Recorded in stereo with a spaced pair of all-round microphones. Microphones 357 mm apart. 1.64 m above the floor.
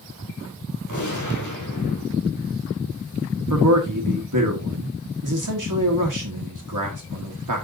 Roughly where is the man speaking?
Right.